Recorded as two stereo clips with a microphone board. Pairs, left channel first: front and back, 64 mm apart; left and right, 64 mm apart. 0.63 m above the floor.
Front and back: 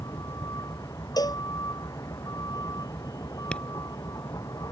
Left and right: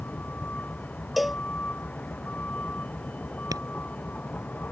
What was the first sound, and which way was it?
A vehicle, 25° left.